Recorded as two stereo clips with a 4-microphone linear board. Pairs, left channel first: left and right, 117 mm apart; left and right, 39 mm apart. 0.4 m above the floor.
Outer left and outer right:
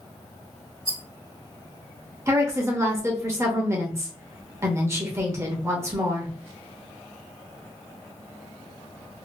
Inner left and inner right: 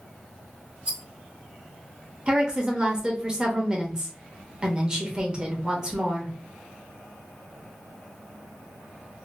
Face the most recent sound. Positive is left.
turn(degrees=-25)  # may be behind; listen again after turning